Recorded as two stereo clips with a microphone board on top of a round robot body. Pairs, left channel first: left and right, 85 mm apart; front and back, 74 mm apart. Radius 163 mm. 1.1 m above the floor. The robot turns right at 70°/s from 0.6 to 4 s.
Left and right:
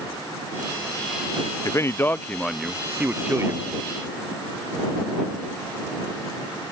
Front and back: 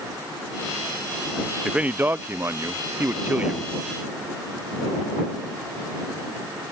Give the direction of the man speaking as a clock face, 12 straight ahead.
8 o'clock.